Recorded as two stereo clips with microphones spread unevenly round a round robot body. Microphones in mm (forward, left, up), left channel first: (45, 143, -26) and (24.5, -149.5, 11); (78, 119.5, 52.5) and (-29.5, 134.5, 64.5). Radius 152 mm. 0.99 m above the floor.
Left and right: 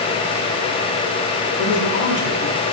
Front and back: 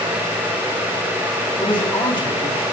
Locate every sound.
1.6 s a man speaking: 35° left, 9.5 m